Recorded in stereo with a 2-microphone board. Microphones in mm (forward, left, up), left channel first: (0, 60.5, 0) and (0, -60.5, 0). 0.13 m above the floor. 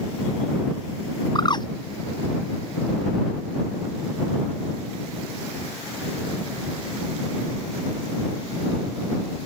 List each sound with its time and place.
1.4 s a bird: 40° left (ahead or behind)